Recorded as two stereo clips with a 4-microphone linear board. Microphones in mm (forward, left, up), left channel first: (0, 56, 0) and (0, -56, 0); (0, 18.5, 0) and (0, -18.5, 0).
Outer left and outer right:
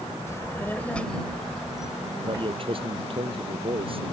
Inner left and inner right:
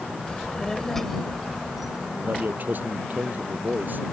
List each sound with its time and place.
0.3 s a child speaking: 25° left (ahead or behind); by 2.1 s 10° right (ahead or behind)
2.2 s a man speaking: 50° right (ahead or behind)